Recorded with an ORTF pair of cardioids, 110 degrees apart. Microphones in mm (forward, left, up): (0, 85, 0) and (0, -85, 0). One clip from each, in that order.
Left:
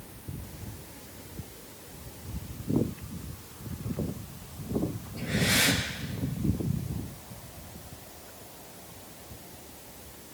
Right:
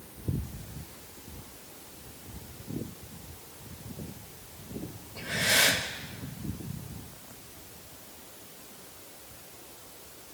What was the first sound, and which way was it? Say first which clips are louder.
Breathing: right 1 dB; 65° right.